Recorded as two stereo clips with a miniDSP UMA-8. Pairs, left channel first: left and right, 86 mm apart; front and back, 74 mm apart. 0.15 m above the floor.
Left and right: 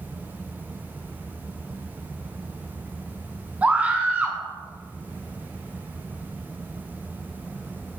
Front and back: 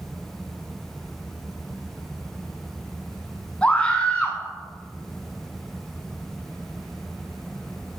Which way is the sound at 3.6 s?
45° right.